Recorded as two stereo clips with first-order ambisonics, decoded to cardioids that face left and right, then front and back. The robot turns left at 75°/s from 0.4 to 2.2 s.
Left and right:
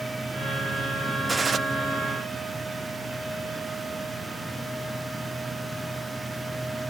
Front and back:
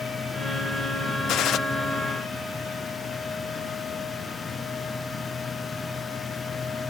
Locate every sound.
1.3 s a gunshot: 15° right; by 1.6 s 35° right